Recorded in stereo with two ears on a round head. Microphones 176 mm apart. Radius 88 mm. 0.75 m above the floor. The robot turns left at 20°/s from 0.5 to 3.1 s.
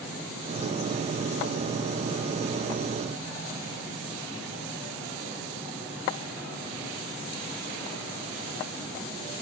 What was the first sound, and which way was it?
Only background noise.